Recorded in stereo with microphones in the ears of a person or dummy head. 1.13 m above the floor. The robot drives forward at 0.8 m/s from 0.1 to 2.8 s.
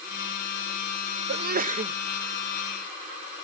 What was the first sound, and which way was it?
A sneeze, 55° right (ahead or behind).